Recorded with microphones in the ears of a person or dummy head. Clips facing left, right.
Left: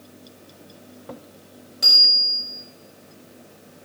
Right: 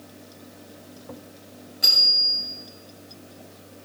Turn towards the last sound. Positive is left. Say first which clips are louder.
# left 3 dB
turn(degrees=60)  # may be behind; listen again after turning